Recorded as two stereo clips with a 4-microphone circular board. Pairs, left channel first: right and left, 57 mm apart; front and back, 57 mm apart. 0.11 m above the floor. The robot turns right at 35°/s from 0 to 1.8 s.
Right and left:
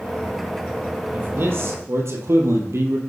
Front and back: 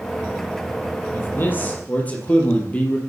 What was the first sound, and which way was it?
A man speaking, 35° left.